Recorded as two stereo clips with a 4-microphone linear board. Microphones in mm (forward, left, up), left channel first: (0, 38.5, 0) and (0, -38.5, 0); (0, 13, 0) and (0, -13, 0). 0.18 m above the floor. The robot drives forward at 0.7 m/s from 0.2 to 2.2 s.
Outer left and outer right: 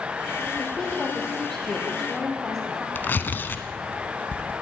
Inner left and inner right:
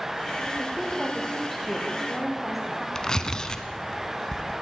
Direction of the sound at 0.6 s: Centre (ahead or behind).